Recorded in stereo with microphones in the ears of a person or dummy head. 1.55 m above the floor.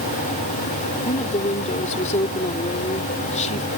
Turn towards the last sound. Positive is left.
turn(degrees=40)  # may be behind; listen again after turning